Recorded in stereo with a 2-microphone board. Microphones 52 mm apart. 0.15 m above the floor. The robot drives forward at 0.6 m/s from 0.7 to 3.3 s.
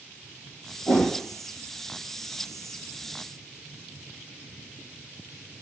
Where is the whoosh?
40° left (ahead or behind), 1.2 m; by 1.2 s 45° left (ahead or behind), 1.1 m.